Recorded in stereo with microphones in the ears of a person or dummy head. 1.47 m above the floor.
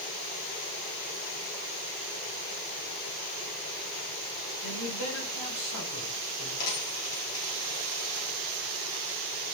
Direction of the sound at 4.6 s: 70° left (ahead or behind).